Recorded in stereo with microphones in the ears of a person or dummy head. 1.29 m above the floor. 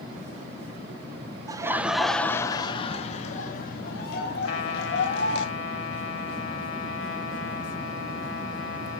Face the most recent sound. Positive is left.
turn(degrees=85)